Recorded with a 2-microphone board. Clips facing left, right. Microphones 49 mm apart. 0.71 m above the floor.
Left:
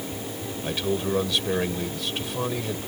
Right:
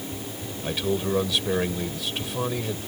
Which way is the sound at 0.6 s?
Centre (ahead or behind).